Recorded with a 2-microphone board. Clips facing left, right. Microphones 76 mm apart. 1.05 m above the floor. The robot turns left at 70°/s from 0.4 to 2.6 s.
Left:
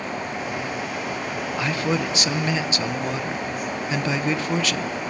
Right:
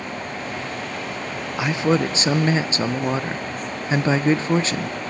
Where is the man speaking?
30° right, 0.6 m; by 5.1 s 100° right, 0.6 m.